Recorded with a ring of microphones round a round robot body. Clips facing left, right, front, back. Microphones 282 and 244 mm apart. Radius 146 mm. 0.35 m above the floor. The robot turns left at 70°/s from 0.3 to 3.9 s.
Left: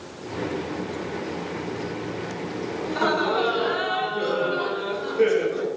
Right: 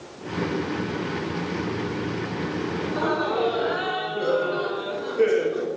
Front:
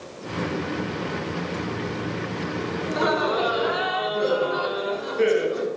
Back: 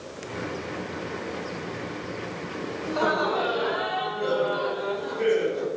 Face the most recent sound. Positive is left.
turn(degrees=0)